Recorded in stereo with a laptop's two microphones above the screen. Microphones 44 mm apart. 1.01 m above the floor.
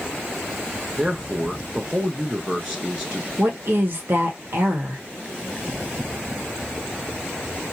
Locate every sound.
1.0 s a man speaking: 20° right (ahead or behind), 0.6 m
3.4 s a woman speaking: 50° right (ahead or behind), 1.2 m